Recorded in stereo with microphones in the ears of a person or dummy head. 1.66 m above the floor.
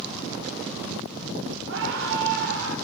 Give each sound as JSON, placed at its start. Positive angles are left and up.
{"t": 1.7, "sound": "a scream", "side_deg": -75, "distance_m": 7.0}